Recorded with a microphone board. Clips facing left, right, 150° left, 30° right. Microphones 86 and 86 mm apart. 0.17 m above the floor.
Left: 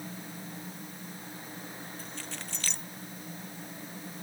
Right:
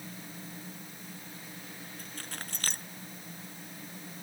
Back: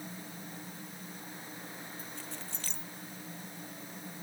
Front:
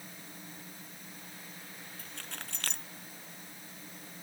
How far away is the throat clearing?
I don't hear throat clearing.